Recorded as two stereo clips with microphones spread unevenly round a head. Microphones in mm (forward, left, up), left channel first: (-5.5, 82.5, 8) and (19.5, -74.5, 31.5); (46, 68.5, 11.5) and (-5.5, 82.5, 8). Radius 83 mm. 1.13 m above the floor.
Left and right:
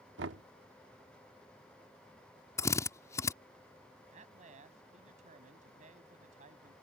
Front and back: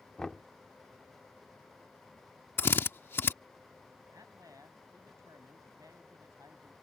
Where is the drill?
25° left.